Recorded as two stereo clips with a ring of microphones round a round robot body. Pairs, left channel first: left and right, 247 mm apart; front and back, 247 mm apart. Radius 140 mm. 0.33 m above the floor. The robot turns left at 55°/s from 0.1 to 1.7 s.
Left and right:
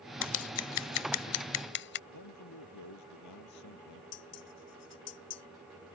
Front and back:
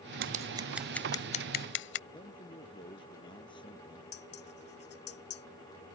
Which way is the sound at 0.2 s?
125° left.